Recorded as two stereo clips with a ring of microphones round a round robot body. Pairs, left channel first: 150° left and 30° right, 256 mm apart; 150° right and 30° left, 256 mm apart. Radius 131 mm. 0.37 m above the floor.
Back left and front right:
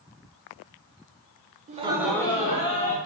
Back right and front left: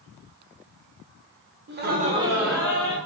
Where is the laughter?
15° left, 1.1 m; by 3.0 s 140° left, 1.4 m.